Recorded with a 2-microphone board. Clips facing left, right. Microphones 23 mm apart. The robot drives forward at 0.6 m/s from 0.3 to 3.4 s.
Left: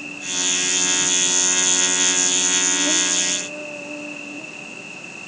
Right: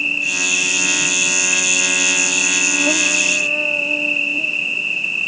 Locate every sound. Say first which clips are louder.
0.0 s an insect: right 8 dB; 65° right (ahead or behind); by 5.3 s 85° right